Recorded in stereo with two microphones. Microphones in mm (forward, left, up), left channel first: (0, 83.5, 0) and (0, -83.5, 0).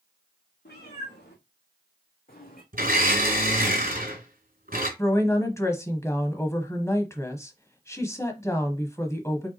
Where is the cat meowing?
90° left, 2 m; by 2.6 s 60° left (ahead or behind), 1.7 m.